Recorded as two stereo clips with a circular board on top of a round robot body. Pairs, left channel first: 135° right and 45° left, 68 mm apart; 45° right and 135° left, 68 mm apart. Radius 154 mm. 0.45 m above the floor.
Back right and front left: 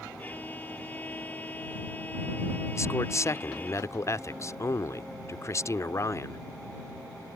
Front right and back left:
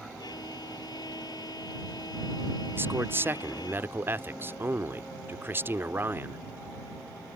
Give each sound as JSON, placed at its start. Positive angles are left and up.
{"t": 0.2, "sound": "a violin", "azimuth_deg": -70}
{"t": 2.8, "sound": "a man speaking", "azimuth_deg": -175}